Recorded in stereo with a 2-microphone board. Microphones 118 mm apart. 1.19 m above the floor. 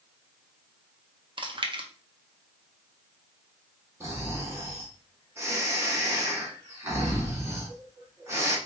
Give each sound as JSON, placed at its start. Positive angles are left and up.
{"t": 1.4, "sound": "chewing", "side_deg": -45, "distance_m": 0.7}
{"t": 4.0, "sound": "snoring", "side_deg": -25, "distance_m": 1.5}